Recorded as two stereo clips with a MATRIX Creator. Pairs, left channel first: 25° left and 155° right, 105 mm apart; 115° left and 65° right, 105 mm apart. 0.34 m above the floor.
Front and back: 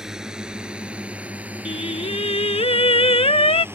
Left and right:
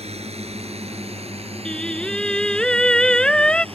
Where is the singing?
30° left.